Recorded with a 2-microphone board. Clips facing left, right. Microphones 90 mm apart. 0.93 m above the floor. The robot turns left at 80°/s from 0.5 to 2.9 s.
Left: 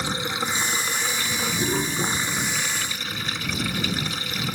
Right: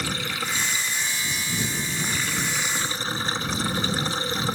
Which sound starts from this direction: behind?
Running water, at 0.0 s.